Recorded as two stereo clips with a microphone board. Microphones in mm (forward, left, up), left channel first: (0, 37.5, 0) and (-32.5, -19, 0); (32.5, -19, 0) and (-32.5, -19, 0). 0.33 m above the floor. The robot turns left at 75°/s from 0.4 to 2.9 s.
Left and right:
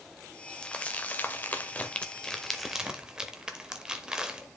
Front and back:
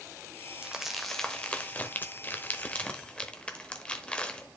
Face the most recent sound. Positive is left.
turn(degrees=-55)